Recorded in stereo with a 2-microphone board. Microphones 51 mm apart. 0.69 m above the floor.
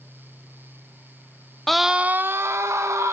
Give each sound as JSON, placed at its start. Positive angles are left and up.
{"t": 1.7, "sound": "a scream", "side_deg": 5, "distance_m": 0.8}